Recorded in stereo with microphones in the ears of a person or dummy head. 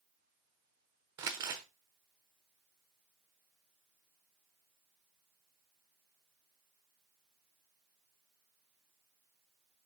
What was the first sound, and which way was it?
Crumpling, 15° right (ahead or behind).